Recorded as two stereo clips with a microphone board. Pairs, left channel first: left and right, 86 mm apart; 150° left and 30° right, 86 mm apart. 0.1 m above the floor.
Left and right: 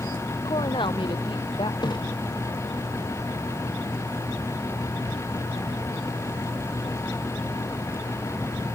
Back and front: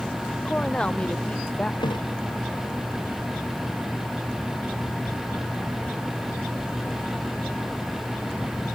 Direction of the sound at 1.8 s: 120° left.